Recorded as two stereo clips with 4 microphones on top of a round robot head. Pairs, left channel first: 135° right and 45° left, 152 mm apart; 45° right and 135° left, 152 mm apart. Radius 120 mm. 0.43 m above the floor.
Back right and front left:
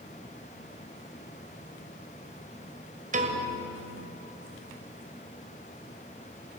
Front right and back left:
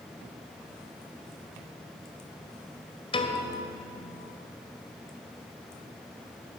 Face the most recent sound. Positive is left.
turn(degrees=10)